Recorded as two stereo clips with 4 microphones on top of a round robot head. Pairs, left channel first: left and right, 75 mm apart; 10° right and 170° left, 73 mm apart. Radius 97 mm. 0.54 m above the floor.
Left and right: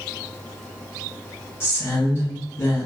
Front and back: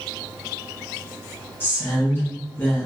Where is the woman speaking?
45° left, 0.9 m.